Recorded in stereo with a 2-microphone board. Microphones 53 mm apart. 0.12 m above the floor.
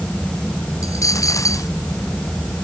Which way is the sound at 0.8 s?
80° left.